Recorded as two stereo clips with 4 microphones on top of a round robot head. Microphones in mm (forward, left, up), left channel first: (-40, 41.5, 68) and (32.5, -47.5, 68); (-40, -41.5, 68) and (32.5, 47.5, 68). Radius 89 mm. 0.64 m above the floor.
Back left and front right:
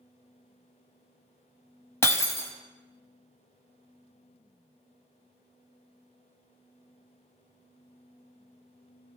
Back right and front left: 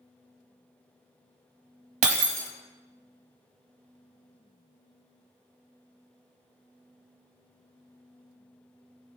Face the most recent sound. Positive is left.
turn(degrees=60)